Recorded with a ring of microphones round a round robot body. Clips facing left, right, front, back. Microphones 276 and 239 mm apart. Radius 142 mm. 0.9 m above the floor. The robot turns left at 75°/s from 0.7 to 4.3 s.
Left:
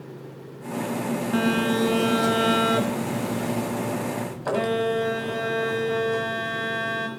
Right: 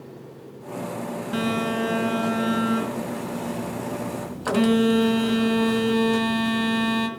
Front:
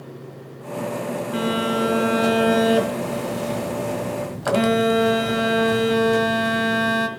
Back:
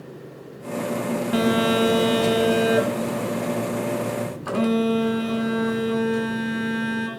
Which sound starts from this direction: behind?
A phone buzzing, at 1.3 s.